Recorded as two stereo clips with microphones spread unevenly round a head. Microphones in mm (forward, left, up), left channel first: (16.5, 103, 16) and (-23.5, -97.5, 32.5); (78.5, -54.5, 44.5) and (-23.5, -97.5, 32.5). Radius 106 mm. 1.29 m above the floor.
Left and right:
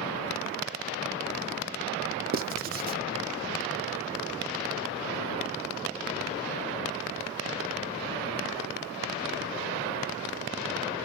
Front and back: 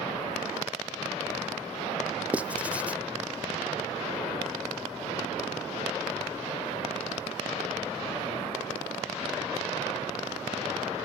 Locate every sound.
2.3 s writing: 95° right, 0.6 m